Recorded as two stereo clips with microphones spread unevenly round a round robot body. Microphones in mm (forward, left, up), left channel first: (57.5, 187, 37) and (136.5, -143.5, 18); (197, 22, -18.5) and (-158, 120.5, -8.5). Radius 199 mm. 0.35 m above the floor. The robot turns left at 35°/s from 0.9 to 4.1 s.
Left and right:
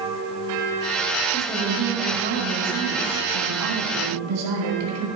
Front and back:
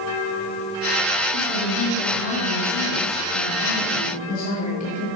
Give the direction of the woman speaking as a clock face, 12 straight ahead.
12 o'clock.